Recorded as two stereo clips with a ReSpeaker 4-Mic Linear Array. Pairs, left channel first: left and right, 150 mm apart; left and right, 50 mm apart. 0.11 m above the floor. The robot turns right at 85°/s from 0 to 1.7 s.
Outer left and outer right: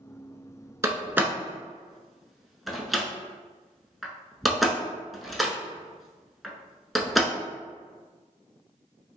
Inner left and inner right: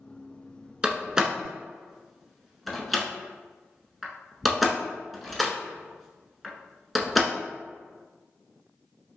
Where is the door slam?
20° right (ahead or behind), 0.7 m; by 7.3 s centre (ahead or behind), 0.7 m.